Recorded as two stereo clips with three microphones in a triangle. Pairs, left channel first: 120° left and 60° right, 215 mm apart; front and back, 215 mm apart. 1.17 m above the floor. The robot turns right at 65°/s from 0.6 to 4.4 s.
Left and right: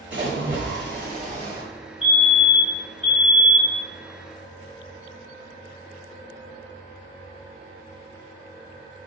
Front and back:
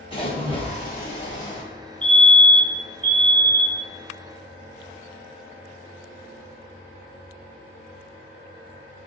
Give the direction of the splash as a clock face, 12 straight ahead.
2 o'clock.